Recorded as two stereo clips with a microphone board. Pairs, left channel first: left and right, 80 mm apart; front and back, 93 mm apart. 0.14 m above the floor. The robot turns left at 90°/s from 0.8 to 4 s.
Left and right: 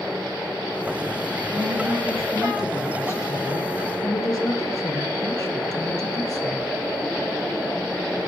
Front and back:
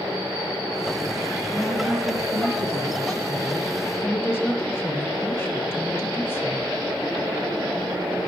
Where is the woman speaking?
80° right, 2.5 m; by 6.7 s 60° left, 2.5 m.